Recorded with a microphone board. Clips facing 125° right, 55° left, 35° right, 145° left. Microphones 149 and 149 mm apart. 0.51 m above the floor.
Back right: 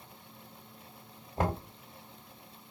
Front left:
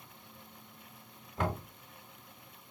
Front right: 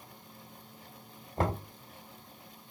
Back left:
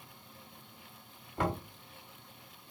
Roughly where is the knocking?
Right.